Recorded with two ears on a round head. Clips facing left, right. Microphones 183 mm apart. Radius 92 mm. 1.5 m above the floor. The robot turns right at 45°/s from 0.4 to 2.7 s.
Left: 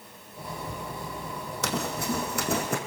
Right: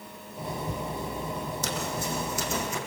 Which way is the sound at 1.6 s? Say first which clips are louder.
Left 6 dB; 50° left (ahead or behind).